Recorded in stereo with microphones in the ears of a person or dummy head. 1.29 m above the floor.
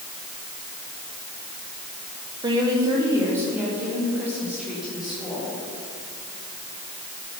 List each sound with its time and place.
2.4 s a woman speaking: 20° right (ahead or behind), 2 m; by 5.5 s centre (ahead or behind), 6 m